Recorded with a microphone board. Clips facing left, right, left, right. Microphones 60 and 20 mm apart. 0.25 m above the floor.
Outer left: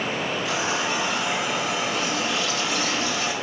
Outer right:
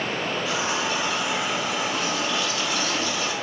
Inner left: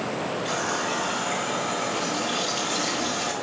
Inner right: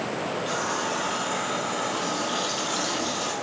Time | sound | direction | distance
0.5 | a running tap | 75° left (ahead or behind) | 3.5 m